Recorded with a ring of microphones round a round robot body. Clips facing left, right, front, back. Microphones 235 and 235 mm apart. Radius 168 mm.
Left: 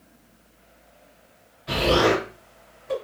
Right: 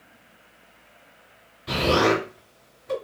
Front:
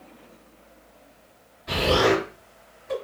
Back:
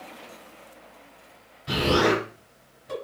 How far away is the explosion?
About 1.8 m.